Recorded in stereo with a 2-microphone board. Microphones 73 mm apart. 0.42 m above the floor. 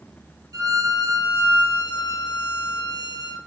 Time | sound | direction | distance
0.5 | a violin | 60° right (ahead or behind) | 3 m